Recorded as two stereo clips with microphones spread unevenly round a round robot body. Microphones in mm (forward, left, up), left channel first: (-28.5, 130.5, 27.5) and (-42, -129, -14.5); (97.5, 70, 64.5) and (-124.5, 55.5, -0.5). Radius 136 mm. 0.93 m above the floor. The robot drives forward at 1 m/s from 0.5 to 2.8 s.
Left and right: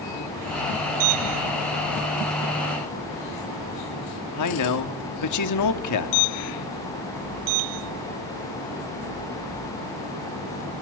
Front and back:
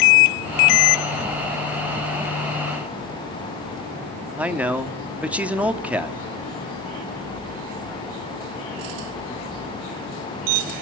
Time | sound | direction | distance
4.4 | a man speaking | 105° left | 2 m